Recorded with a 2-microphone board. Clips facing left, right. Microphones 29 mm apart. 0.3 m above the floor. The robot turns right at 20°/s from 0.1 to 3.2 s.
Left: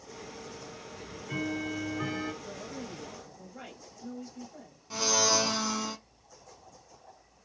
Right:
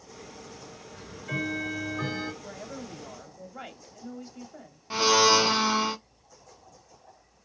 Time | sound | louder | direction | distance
0.9 | ticking | right 3 dB | 85° right | 2.5 m
2.4 | a woman speaking | right 1 dB | 35° right (ahead or behind) | 1.1 m
4.9 | a blender | right 7 dB | 35° right (ahead or behind) | 0.5 m